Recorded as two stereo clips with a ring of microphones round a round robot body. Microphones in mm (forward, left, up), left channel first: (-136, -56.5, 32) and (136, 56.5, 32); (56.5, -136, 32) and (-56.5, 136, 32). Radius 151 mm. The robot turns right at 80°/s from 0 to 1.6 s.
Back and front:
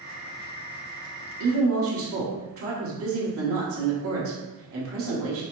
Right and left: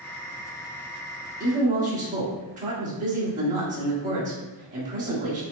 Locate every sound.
1.4 s a woman speaking: 35° left, 1.6 m; by 5.4 s 55° left, 1.6 m